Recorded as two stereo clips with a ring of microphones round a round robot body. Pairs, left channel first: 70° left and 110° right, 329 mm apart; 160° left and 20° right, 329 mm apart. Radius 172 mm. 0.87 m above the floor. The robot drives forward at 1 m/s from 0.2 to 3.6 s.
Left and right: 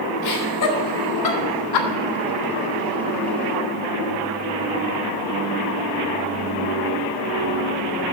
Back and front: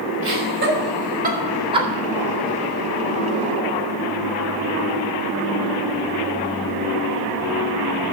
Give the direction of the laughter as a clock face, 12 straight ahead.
11 o'clock.